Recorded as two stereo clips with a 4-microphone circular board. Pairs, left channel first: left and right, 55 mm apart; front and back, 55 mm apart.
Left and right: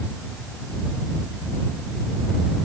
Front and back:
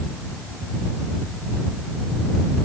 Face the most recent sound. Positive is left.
No sound to turn to.